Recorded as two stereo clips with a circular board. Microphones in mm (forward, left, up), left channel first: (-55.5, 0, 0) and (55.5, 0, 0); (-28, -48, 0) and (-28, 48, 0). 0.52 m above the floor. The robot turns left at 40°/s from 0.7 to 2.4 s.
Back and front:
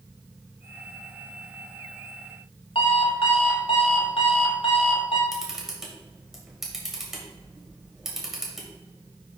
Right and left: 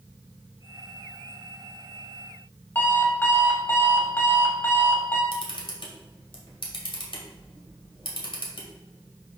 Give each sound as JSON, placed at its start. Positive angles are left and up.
{"t": 2.8, "sound": "an alarm clock", "azimuth_deg": -155, "distance_m": 1.5}
{"t": 5.3, "sound": "a camera shutter", "azimuth_deg": -85, "distance_m": 2.0}